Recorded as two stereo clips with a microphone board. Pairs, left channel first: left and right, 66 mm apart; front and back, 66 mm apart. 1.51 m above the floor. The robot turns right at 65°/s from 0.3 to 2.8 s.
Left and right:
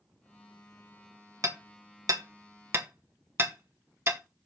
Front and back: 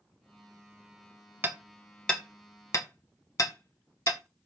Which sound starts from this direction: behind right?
Hammering, at 1.4 s.